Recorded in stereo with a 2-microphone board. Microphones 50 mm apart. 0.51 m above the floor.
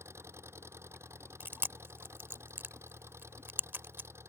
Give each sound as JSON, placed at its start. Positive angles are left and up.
{"t": 0.0, "sound": "an engine running", "side_deg": -60}
{"t": 1.4, "sound": "chewing", "side_deg": -45}